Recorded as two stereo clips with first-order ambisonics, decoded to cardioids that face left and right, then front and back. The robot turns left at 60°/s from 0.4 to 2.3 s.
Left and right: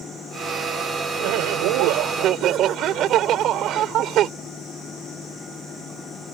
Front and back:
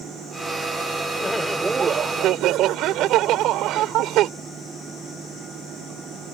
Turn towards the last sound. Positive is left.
turn(degrees=-140)